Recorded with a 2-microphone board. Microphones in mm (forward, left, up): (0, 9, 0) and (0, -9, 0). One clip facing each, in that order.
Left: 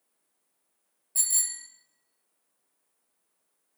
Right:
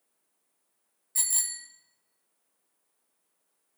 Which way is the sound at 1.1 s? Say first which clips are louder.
Left 1 dB; 25° right (ahead or behind).